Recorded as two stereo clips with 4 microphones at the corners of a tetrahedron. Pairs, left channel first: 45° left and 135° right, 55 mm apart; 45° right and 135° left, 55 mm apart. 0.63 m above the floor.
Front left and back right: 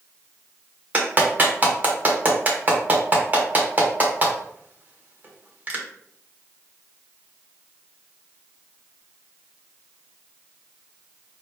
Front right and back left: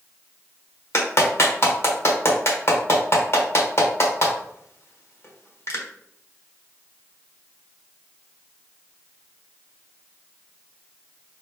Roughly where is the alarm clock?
No alarm clock in this recording.